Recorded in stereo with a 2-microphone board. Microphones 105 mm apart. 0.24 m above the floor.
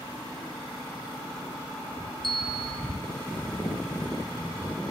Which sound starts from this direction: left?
A bell, at 2.2 s.